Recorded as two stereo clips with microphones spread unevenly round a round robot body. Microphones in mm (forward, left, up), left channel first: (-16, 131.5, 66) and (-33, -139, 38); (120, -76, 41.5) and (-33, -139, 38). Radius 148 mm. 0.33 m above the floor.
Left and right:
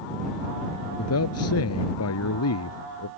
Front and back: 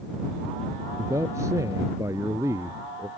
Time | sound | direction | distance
1.0 | a man speaking | 125° left | ?